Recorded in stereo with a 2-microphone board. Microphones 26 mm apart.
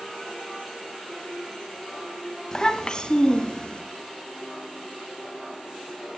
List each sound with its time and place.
2.5 s a child speaking: 30° left (ahead or behind), 1.2 m; by 3.8 s 40° left (ahead or behind), 2.5 m